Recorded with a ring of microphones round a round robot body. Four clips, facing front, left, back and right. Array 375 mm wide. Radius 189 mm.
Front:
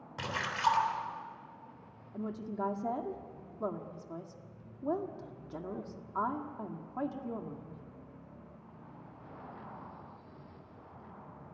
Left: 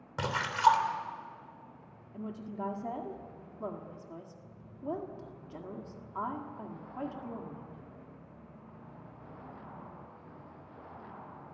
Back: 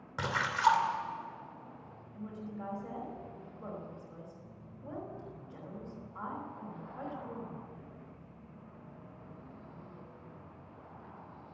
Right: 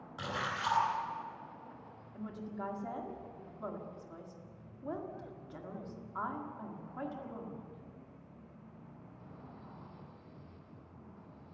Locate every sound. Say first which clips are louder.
0.2 s a splash: left 10 dB, back 3 dB; 105° left, 3 m
2.1 s a woman speaking: left 3 dB, front 6 dB; 20° left, 1.9 m